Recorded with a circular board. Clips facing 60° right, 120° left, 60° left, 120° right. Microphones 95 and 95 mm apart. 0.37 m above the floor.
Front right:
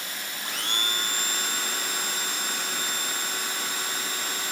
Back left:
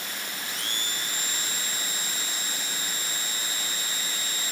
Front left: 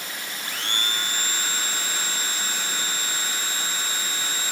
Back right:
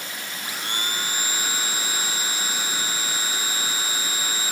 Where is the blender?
45° right.